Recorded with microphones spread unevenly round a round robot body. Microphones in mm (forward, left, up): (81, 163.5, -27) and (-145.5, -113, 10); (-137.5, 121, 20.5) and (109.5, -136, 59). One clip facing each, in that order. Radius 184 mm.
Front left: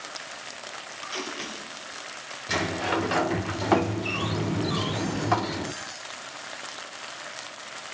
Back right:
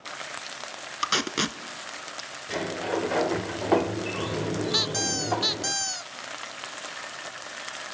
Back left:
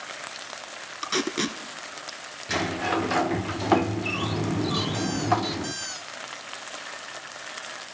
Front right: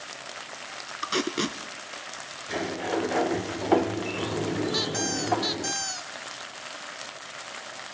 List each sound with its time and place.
1.0 s tape being pulled: 140° right, 1.3 m
2.5 s a sliding door: 90° left, 0.7 m
4.7 s a squeak: 130° right, 0.6 m